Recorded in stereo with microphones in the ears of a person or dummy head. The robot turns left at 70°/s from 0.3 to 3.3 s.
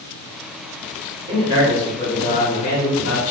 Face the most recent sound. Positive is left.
turn(degrees=85)